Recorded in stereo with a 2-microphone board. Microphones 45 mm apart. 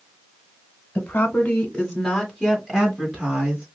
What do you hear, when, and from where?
0.9 s a woman speaking: 30° left (ahead or behind), 1.4 m; by 3.6 s 30° right (ahead or behind), 2 m